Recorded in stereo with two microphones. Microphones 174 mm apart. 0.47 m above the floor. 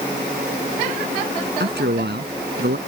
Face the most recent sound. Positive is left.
turn(degrees=-75)  # may be behind; listen again after turning